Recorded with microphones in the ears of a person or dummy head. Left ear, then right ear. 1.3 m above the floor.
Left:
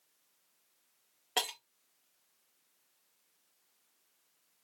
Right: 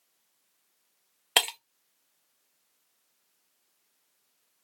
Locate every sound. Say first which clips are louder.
1.4 s breaking glass: right 9 dB; 35° right (ahead or behind), 0.6 m